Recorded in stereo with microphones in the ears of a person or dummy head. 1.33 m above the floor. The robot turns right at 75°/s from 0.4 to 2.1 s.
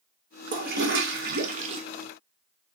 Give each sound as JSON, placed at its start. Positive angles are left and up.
{"t": 0.5, "sound": "a toilet flushing", "azimuth_deg": -135, "distance_m": 0.8}